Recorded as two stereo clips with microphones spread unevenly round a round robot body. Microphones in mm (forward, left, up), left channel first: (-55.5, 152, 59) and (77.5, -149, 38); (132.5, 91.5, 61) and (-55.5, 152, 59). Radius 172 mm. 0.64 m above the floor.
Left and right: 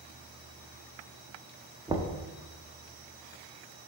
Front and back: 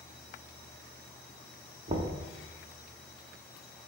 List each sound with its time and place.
1.9 s knocking: 140° right, 0.6 m